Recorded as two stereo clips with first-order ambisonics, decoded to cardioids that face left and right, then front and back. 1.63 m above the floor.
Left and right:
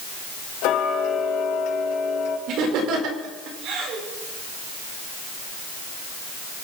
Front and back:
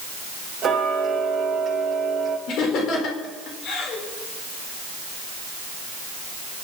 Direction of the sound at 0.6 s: 105° left.